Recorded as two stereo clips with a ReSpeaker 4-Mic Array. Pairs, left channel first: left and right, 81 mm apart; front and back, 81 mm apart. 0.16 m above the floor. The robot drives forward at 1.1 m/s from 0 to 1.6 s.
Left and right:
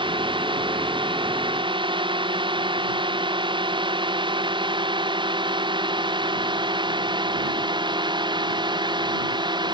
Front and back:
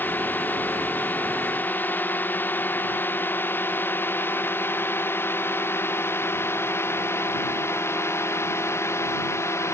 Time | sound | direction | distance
0.0 | a drone | 70° right | ?